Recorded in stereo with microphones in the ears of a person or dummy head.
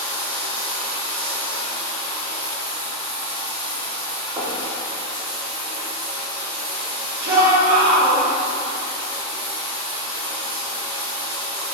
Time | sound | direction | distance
0.0 | running water | 10° left (ahead or behind) | 1.5 m
4.4 | knocking | 20° right (ahead or behind) | 0.7 m
7.2 | a shout | 50° right (ahead or behind) | 1.2 m